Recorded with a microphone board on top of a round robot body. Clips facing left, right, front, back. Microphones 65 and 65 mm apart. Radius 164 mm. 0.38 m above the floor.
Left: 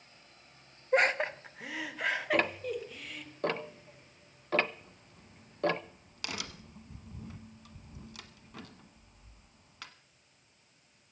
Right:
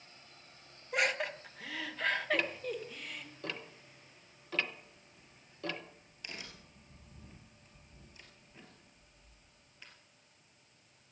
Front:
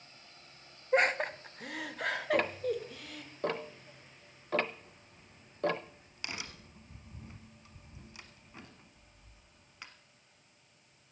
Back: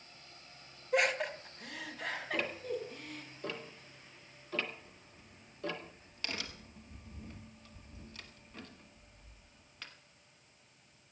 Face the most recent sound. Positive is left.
turn(degrees=75)